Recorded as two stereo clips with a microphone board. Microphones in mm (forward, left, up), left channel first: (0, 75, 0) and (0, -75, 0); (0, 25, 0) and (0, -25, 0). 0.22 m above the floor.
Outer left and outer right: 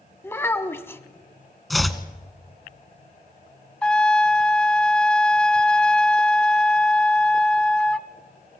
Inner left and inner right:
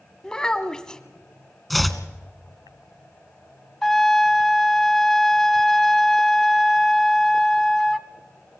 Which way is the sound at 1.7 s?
Centre (ahead or behind).